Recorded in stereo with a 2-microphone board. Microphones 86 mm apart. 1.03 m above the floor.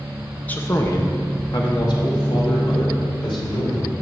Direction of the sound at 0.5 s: 20° left (ahead or behind).